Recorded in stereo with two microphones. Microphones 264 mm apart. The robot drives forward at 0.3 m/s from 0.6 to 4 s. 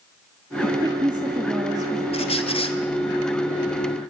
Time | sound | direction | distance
0.6 | a woman speaking | 15° right (ahead or behind) | 1.3 m
2.1 | a squeak | 25° left (ahead or behind) | 2.5 m